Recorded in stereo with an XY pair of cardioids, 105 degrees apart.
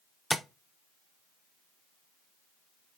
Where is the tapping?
5° left, 0.5 m.